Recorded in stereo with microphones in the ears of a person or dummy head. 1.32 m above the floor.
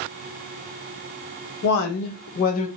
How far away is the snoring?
I don't hear snoring.